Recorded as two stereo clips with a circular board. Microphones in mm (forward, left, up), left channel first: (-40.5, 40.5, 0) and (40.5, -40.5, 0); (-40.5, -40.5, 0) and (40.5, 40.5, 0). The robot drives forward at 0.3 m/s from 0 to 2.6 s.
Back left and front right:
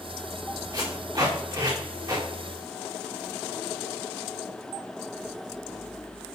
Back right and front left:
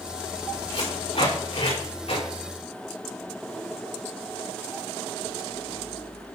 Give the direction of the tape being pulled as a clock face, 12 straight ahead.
3 o'clock.